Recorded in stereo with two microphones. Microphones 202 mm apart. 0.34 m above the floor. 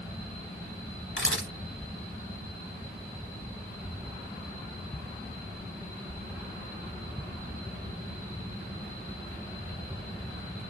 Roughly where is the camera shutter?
Left.